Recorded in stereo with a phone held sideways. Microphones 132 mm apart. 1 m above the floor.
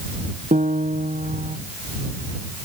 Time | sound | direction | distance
0.5 | a piano | 70° right (ahead or behind) | ?